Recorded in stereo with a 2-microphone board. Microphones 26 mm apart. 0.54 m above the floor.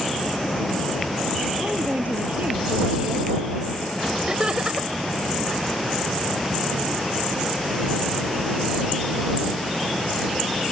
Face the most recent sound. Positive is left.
turn(degrees=-35)  # may be behind; listen again after turning